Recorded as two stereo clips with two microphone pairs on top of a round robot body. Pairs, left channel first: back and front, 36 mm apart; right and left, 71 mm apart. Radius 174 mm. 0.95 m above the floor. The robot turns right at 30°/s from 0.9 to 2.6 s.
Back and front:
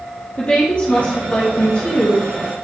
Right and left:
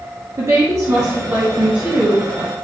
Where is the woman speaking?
130° left, 1.4 m; by 2.3 s 170° left, 1.4 m.